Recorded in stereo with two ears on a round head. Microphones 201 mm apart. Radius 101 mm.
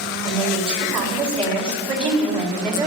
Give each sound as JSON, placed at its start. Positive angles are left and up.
{"t": 0.2, "sound": "a woman speaking", "side_deg": -25, "distance_m": 3.0}